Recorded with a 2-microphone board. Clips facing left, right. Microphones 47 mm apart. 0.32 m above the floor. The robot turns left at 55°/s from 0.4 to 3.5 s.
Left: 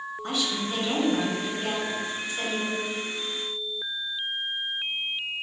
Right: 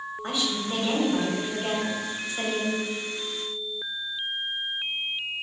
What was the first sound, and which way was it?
A woman speaking, 50° right.